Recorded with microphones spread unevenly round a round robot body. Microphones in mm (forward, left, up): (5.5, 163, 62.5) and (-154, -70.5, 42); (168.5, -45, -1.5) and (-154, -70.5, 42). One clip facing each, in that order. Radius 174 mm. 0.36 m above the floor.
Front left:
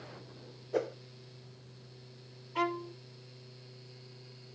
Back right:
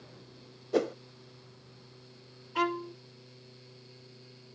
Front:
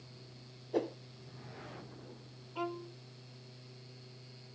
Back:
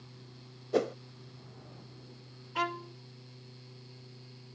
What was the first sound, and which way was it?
A whoosh, 155° right.